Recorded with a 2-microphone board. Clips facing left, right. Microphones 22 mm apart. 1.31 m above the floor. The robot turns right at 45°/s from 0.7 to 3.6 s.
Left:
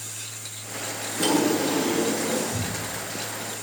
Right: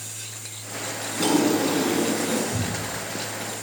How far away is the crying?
I don't hear crying.